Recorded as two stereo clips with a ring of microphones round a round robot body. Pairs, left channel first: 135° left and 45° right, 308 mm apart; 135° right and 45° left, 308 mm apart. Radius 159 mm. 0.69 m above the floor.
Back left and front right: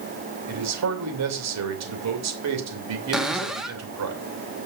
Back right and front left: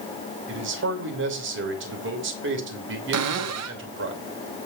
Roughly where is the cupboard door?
Ahead left.